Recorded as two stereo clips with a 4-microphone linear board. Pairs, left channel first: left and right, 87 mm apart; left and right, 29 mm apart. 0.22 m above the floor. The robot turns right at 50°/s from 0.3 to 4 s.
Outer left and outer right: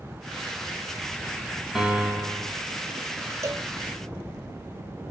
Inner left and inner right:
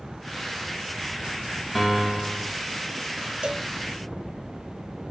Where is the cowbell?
35° right (ahead or behind), 0.5 m; by 3.7 s 30° right (ahead or behind), 0.5 m.